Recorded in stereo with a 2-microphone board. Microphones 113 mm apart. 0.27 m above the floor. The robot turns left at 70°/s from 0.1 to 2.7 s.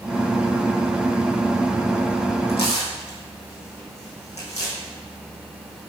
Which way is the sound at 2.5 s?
60° left (ahead or behind).